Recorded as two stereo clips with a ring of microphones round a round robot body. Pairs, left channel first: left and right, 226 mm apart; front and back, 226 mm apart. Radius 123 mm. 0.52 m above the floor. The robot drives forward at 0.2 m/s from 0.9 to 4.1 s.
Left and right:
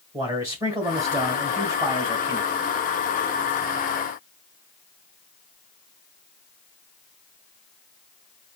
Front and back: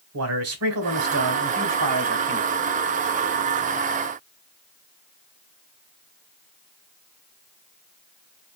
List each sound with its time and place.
0.1 s a man speaking: 165° right, 1.8 m; by 2.5 s 170° right, 2 m